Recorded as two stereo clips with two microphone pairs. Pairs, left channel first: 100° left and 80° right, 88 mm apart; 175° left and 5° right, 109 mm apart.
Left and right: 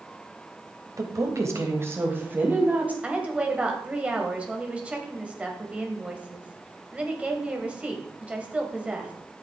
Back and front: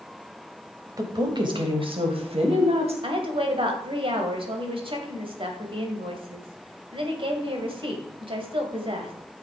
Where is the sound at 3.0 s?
5° right, 2 m.